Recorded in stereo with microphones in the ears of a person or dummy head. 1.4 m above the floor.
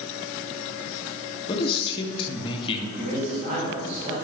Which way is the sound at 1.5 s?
25° left (ahead or behind).